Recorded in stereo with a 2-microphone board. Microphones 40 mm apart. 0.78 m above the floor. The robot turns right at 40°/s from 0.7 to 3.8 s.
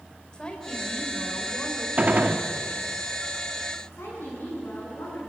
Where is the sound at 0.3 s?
20° left, 4 m; by 1.9 s 70° left, 4 m.